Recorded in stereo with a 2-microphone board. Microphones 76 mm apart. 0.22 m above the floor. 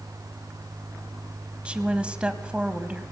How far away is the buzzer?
No buzzer in this recording.